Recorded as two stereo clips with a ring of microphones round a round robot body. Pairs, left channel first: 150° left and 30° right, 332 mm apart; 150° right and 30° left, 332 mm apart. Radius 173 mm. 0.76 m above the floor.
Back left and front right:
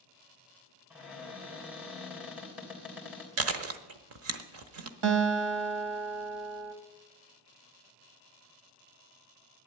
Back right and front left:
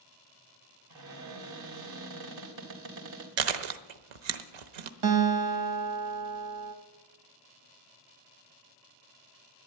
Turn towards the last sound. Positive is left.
turn(degrees=0)